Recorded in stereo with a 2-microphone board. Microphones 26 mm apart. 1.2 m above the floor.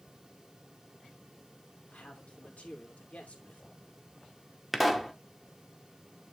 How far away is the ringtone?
I don't hear a ringtone.